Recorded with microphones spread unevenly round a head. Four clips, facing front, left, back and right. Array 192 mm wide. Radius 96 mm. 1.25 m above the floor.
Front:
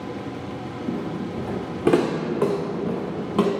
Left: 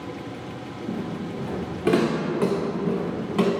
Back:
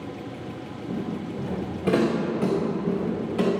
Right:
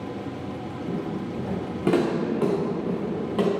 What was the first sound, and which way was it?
Footsteps, 10° right.